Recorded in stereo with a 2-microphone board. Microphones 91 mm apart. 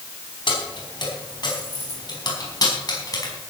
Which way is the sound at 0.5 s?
60° left (ahead or behind).